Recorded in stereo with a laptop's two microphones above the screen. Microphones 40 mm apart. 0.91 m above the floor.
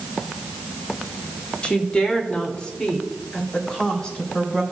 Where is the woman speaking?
30° left (ahead or behind), 2.5 m; by 4.6 s 20° left (ahead or behind), 4 m.